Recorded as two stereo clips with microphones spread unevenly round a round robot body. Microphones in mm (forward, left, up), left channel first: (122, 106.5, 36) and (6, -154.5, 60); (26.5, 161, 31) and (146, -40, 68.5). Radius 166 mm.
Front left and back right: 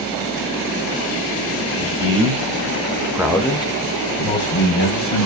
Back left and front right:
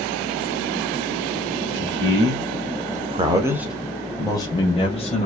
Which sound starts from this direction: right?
A man speaking, at 1.7 s.